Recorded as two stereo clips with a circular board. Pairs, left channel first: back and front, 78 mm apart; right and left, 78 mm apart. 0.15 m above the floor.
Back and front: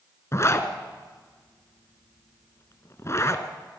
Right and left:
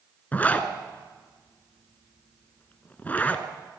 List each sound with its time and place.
0.3 s a zipper: 150° right, 1.6 m